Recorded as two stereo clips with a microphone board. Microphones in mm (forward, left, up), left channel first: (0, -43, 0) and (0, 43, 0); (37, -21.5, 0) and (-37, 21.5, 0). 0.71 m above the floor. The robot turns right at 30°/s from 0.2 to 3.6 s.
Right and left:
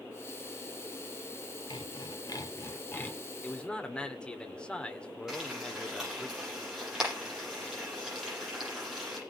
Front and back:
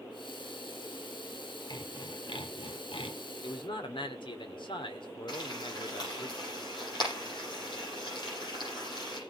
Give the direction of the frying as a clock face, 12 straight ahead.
12 o'clock.